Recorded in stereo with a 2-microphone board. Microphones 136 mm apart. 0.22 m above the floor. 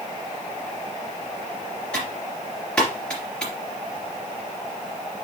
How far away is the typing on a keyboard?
About 3 m.